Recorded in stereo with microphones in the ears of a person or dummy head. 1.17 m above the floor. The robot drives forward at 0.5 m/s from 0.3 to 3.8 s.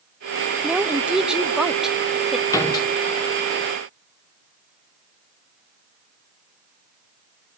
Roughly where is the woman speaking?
Centre.